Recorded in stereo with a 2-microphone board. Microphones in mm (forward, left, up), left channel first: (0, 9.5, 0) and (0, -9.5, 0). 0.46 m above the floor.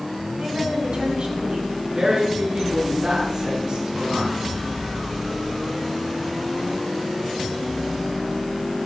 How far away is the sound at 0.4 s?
About 3.5 m.